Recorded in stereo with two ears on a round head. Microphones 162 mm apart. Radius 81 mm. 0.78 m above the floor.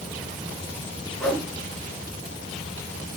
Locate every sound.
1.2 s a whoosh: centre (ahead or behind), 3.5 m